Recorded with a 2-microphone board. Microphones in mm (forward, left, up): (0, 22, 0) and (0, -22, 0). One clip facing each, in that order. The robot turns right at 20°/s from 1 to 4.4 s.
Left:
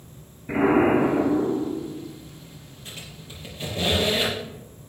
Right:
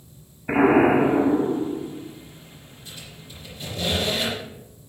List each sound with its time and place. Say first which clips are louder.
0.5 s an explosion: right 2 dB; 60° right (ahead or behind), 3.5 m; by 2.0 s 40° right (ahead or behind), 3.5 m
2.9 s a squeak: left 2 dB; 60° left (ahead or behind), 6 m; by 4.4 s 30° left (ahead or behind), 6 m